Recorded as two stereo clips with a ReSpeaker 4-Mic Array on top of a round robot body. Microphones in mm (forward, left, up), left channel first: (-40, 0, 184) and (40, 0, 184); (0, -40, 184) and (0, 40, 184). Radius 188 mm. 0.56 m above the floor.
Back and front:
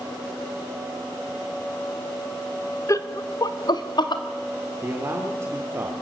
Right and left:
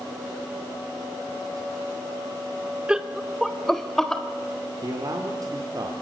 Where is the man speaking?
55° left, 2.5 m.